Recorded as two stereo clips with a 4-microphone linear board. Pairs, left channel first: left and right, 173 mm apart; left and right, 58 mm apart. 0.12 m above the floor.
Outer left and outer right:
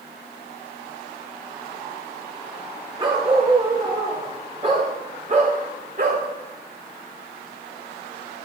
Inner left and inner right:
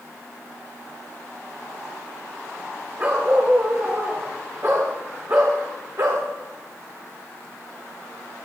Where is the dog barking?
30° right (ahead or behind), 7 m; by 6.3 s 55° right (ahead or behind), 5 m.